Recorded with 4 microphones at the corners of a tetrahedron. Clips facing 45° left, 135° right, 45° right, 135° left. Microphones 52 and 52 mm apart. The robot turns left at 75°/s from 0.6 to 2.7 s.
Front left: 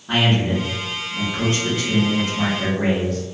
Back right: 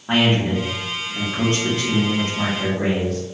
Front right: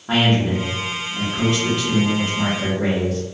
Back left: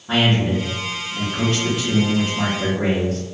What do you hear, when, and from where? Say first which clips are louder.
0.1 s a man speaking: back right 1 dB, even; 95° right, 1.1 m; by 3.2 s 110° left, 1.1 m